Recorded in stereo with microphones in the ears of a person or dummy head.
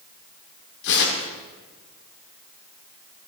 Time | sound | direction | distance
0.8 | tearing paper | 70° left (ahead or behind) | 1.7 m